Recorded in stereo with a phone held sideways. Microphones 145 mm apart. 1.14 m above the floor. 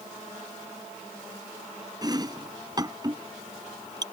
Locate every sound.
2.0 s chopping: 30° right (ahead or behind)